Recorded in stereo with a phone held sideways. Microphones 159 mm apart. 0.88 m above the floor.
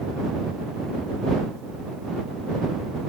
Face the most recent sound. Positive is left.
No sound to turn to.